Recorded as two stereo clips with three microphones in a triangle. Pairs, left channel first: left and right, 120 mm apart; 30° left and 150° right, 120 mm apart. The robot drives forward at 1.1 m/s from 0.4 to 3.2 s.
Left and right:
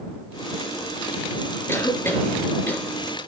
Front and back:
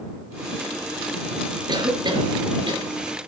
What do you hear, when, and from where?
1.7 s a cough: 160° left, 3.5 m; by 3.3 s 165° left, 5 m